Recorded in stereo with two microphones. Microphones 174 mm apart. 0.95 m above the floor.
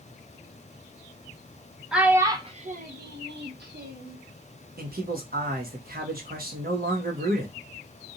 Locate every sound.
1.9 s a child speaking: 5° right (ahead or behind), 0.9 m; by 4.2 s 70° right (ahead or behind), 1.4 m
4.8 s a man speaking: 60° right (ahead or behind), 1.4 m